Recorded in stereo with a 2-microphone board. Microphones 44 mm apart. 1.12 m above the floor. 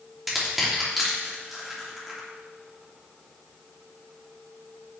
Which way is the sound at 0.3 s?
5° right (ahead or behind).